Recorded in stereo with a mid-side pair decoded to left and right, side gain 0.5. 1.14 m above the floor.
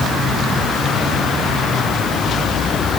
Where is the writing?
I don't hear writing.